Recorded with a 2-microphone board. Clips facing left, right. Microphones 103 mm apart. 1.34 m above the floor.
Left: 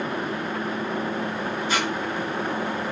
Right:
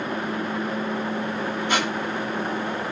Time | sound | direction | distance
1.7 | a squeak | 65° right (ahead or behind) | 1.5 m